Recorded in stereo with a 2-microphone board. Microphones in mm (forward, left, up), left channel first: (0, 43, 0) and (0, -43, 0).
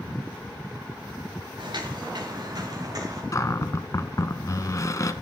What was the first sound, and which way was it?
Footsteps, 60° right (ahead or behind).